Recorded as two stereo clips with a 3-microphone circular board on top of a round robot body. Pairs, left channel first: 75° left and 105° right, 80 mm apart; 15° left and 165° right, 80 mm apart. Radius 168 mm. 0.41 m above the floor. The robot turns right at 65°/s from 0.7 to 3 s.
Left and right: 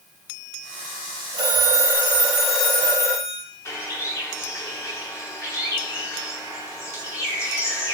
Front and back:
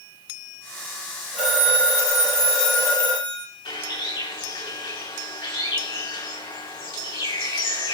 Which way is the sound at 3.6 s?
20° left.